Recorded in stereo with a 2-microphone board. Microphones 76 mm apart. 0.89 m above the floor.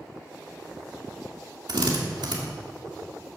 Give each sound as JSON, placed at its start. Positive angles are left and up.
{"t": 1.7, "sound": "a drill", "side_deg": -75, "distance_m": 2.0}